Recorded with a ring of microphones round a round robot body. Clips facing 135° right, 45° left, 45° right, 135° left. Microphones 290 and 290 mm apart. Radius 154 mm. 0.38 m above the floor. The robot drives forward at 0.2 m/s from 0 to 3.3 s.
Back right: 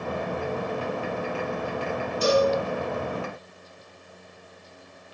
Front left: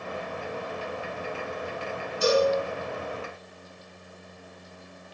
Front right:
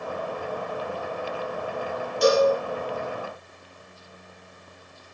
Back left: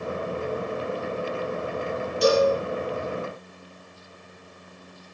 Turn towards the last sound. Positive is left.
turn(degrees=-95)